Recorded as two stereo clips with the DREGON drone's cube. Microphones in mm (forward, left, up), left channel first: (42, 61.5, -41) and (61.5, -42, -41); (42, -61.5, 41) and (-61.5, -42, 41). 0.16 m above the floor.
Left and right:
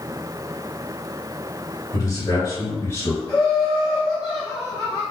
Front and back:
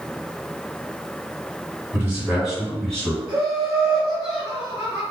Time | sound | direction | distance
1.9 | a man speaking | 115° left | 2.0 m
3.3 | laughter | 135° left | 1.9 m